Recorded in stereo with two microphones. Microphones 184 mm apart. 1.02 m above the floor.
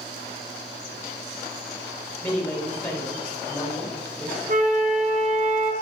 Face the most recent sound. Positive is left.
turn(degrees=-45)  # may be behind; listen again after turning